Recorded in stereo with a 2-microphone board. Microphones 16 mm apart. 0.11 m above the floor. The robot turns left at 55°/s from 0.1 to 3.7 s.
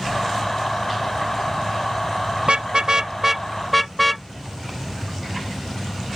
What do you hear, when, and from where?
2.4 s a car horn: 70° right (ahead or behind); by 4.2 s centre (ahead or behind)